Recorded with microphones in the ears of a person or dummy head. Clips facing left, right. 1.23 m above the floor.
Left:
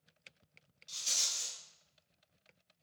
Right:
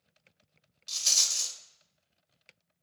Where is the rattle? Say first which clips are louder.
Right 4 dB; 75° right (ahead or behind), 0.6 m.